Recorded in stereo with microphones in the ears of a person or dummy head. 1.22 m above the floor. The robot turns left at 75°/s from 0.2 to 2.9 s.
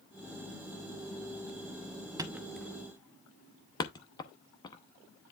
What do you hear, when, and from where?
2.2 s a thud: 20° right (ahead or behind), 0.7 m; by 5.3 s 20° left (ahead or behind), 0.7 m